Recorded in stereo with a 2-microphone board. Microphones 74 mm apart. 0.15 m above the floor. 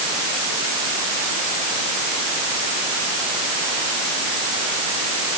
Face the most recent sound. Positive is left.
No sound to turn to.